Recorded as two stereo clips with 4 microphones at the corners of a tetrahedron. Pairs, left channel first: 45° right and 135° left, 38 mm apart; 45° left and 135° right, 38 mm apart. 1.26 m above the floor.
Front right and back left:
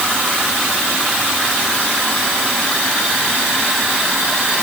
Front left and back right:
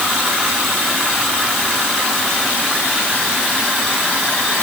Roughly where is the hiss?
No hiss in this recording.